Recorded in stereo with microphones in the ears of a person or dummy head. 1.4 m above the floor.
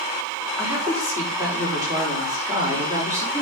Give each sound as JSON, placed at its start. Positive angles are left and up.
{"t": 0.6, "sound": "a woman speaking", "side_deg": -25, "distance_m": 5.0}